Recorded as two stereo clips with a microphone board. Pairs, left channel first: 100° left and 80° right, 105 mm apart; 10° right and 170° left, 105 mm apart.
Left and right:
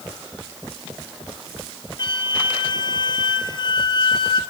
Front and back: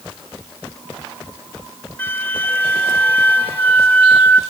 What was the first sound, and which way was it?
A flute, 60° left.